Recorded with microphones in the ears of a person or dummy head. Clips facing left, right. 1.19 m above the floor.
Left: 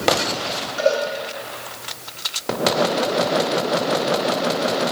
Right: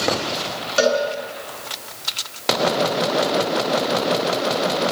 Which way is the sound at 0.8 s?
85° right.